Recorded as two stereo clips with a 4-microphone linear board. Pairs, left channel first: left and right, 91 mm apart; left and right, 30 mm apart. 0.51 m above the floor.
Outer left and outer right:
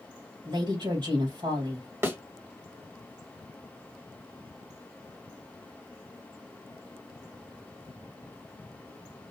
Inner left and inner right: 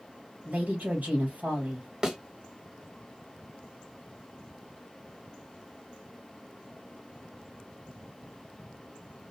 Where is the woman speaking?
60° right (ahead or behind), 3 m.